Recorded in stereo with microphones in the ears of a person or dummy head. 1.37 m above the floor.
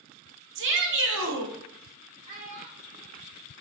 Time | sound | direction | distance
0.6 | a shout | 60° right (ahead or behind) | 0.7 m
2.3 | a child speaking | 30° right (ahead or behind) | 0.7 m